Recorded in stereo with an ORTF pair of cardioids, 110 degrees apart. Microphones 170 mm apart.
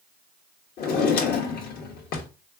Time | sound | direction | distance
0.8 | a drawer | 65° left | 1.3 m